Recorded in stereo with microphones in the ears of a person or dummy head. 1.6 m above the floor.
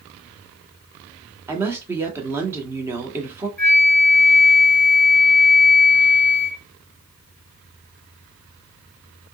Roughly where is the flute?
Centre.